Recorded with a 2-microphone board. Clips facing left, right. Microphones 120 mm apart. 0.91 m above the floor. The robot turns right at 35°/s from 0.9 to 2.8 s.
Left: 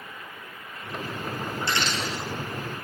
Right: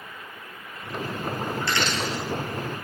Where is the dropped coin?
20° left (ahead or behind), 1.6 m; by 2.2 s 40° left (ahead or behind), 1.6 m.